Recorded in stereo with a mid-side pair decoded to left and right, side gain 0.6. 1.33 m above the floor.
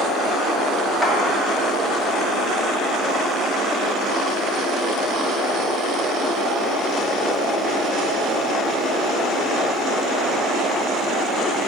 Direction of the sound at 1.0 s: 10° left.